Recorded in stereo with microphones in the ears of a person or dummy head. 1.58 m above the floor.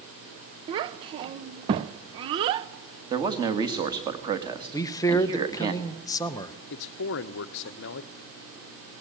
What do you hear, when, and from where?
0.7 s a child speaking: 25° right (ahead or behind), 0.6 m
3.1 s a man speaking: 25° right (ahead or behind), 2 m
4.7 s a man speaking: 15° left (ahead or behind), 1.0 m
6.7 s a man speaking: 55° left (ahead or behind), 0.8 m